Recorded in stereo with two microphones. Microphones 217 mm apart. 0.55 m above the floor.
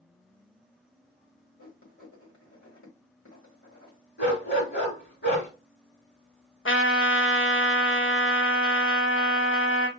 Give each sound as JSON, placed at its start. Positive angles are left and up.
{"t": 1.6, "sound": "writing", "side_deg": 70, "distance_m": 2.0}
{"t": 4.2, "sound": "a dog barking", "side_deg": 55, "distance_m": 2.0}
{"t": 6.7, "sound": "a trumpet", "side_deg": 70, "distance_m": 0.7}